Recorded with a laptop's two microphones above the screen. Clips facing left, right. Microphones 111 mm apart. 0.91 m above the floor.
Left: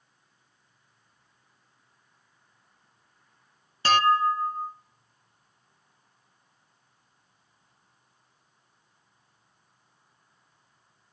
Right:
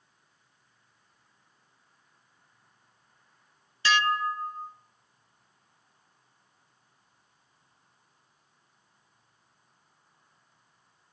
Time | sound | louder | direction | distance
3.9 | dishes clattering | left 5 dB | 45° left (ahead or behind) | 0.8 m